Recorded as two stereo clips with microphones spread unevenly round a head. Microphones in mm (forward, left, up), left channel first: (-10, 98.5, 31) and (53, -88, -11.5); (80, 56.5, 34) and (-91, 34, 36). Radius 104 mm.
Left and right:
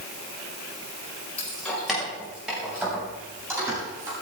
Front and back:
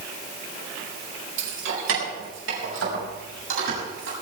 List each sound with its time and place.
1.4 s keys jangling: 170° right, 4.5 m; by 4.1 s 150° right, 8.5 m